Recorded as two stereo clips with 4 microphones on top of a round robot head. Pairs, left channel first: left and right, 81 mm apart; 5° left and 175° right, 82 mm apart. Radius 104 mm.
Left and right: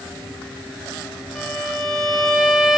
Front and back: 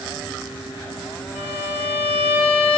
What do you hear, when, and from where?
1.4 s a violin: straight ahead, 3.5 m